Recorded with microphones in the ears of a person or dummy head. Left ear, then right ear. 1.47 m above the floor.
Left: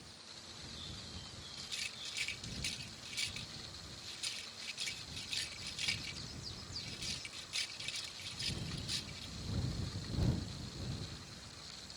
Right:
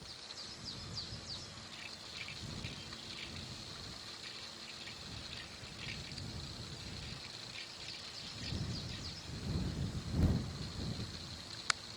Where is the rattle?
90° left.